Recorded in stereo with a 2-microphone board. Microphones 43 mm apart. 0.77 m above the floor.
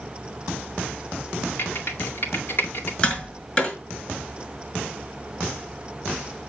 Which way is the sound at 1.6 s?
55° left (ahead or behind).